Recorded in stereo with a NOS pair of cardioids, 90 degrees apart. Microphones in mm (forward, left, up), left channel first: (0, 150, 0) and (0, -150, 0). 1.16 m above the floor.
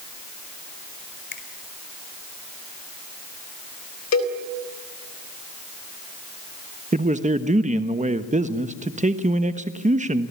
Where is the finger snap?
35° left, 5 m.